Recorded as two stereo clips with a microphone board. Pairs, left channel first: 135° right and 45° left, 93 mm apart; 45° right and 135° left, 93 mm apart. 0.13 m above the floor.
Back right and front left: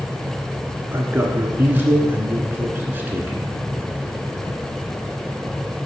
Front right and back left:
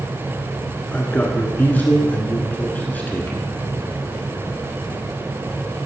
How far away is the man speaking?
About 1.4 m.